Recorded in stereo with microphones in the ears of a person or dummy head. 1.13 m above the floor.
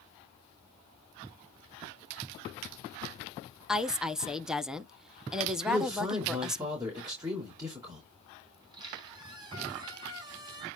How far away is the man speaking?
About 3.5 m.